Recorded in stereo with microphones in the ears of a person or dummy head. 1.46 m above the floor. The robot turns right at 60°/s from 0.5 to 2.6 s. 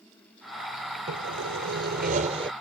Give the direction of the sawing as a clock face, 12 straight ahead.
4 o'clock.